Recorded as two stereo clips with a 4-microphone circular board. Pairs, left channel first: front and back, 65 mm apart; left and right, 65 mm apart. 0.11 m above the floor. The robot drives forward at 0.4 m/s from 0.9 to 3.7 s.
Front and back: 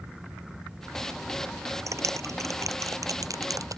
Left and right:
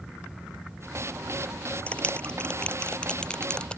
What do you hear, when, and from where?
1.9 s a clap: 155° left; by 3.8 s 165° left